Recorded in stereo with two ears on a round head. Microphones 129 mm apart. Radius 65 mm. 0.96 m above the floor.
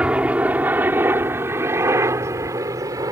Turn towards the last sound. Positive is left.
turn(degrees=-25)  # may be behind; listen again after turning